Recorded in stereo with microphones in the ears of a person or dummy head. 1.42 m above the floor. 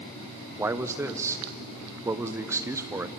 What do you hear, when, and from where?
0.6 s a man speaking: 10° right (ahead or behind), 0.9 m